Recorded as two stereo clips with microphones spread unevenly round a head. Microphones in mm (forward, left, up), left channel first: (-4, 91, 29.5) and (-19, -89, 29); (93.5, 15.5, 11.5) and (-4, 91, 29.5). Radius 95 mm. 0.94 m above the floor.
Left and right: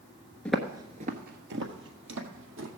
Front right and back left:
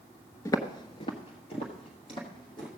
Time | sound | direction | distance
0.5 | footsteps | 10° left | 0.9 m